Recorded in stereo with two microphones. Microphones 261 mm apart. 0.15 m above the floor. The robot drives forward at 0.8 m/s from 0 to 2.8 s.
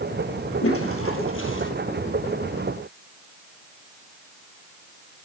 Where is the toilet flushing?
65° left (ahead or behind), 2.5 m; by 1.7 s 55° left (ahead or behind), 3 m.